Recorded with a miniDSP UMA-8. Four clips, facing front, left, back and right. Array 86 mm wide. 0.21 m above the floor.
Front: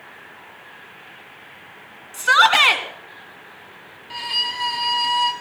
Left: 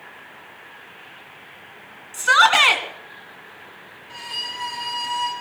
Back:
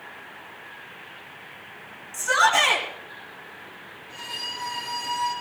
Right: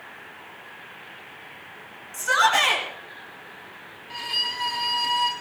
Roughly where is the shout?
Ahead left.